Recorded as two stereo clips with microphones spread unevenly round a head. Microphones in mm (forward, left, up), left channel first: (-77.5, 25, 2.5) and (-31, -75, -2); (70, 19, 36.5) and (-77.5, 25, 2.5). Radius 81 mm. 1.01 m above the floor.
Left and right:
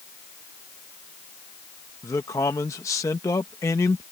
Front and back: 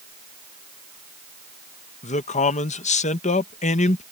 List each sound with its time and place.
2.0 s a man speaking: 45° left